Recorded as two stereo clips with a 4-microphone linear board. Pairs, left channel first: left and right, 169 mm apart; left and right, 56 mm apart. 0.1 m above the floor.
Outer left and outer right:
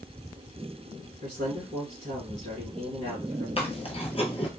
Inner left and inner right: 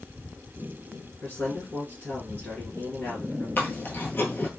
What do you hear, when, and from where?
1.2 s a man speaking: 30° left (ahead or behind), 1.9 m
3.6 s chewing: 40° left (ahead or behind), 0.8 m